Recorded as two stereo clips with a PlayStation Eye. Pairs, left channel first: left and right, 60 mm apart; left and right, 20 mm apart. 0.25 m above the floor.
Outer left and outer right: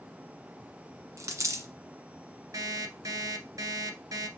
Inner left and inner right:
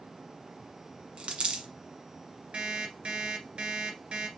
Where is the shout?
No shout in this recording.